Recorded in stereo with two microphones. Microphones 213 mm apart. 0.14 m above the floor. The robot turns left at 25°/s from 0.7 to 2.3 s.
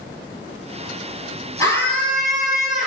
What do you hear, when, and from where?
1.6 s a scream: 15° left (ahead or behind), 3 m; by 2.9 s centre (ahead or behind), 3 m